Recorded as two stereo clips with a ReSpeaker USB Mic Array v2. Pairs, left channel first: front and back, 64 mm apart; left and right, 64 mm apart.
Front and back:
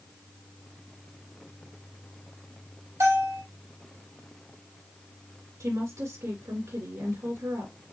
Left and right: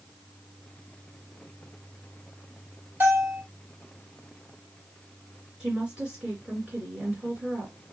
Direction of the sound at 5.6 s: 160° right.